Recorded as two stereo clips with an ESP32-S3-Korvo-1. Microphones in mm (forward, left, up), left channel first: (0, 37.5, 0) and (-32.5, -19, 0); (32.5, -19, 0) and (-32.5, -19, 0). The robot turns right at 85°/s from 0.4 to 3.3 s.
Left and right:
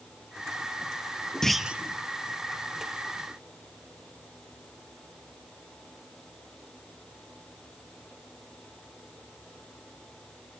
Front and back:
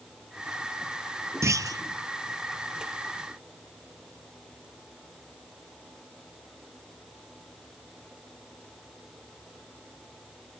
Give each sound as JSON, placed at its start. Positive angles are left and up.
{"t": 1.4, "sound": "a clunk", "azimuth_deg": 140, "distance_m": 0.6}